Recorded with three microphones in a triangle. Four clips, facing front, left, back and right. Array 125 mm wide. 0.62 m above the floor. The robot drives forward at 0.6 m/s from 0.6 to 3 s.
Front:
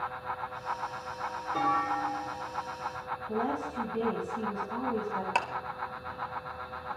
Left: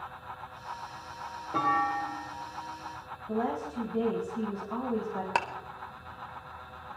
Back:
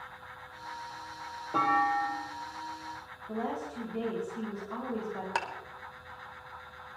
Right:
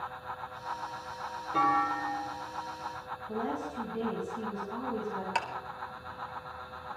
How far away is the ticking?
About 1.4 m.